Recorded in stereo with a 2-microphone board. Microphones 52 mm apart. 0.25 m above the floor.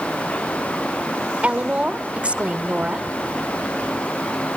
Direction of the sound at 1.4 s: 20° right (ahead or behind).